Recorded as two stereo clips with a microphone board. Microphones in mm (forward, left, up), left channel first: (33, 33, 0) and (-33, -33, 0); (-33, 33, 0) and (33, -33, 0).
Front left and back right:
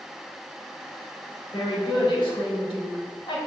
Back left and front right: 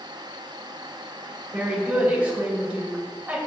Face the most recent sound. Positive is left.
turn(degrees=30)